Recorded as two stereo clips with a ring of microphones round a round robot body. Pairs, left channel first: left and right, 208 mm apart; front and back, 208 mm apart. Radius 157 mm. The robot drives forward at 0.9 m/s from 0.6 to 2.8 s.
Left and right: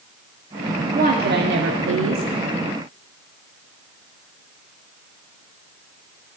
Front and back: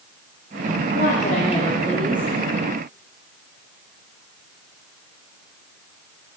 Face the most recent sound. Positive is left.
turn(degrees=-125)